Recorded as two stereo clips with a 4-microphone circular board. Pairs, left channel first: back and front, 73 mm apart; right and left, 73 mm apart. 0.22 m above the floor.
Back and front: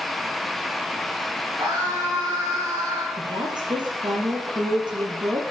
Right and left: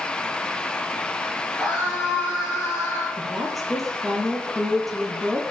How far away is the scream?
About 4 m.